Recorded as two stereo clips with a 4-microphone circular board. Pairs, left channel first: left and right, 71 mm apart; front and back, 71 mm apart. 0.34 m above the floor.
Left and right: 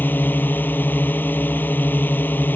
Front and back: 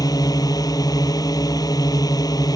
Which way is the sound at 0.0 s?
25° left.